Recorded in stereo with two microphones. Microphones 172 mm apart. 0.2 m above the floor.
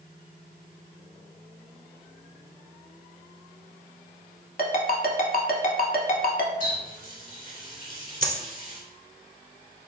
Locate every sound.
4.6 s a ringtone: 60° left (ahead or behind), 0.7 m
6.6 s a running tap: 60° left (ahead or behind), 1.6 m
8.2 s a dropped coin: 55° right (ahead or behind), 0.7 m